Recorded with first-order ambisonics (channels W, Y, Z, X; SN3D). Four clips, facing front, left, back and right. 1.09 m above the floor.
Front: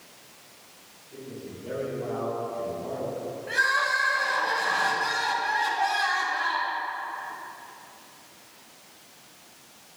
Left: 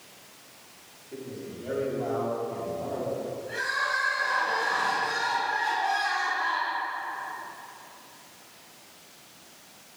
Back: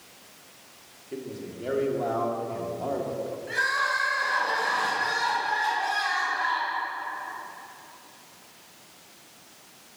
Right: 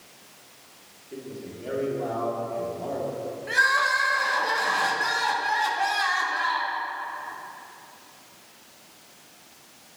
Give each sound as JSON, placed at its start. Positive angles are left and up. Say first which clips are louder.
{"t": 1.1, "sound": "a man speaking", "louder": "right 1 dB, back 4 dB", "azimuth_deg": -170, "distance_m": 2.5}
{"t": 3.5, "sound": "crying", "louder": "right 8 dB, front 2 dB", "azimuth_deg": -80, "distance_m": 2.5}